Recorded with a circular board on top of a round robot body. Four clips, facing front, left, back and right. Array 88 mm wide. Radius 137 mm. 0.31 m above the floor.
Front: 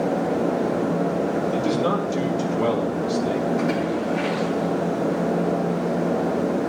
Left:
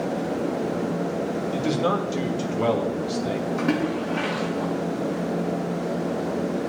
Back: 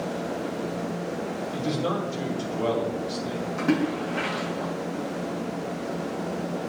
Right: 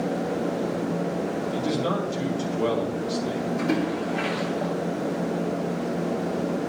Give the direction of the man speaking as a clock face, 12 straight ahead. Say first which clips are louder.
Left 4 dB, front 2 dB; 10 o'clock.